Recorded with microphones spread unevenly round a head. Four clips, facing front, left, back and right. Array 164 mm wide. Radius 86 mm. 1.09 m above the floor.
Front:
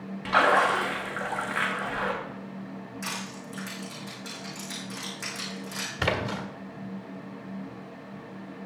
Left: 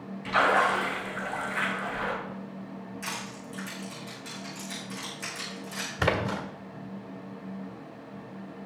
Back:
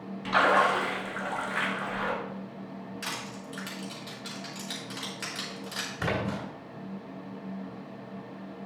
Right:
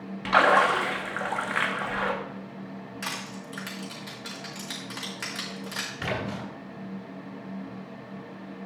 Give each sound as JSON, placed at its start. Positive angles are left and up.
{"t": 0.2, "sound": "a splash", "azimuth_deg": -60, "distance_m": 1.6}
{"t": 3.0, "sound": "crushing", "azimuth_deg": -75, "distance_m": 4.0}
{"t": 6.0, "sound": "a splash", "azimuth_deg": 65, "distance_m": 1.7}